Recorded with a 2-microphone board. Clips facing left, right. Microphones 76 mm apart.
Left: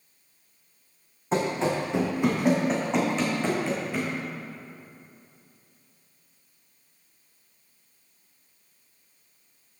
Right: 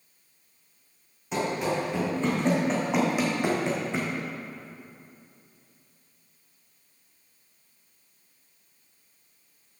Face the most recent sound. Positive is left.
turn(degrees=-30)  # may be behind; listen again after turning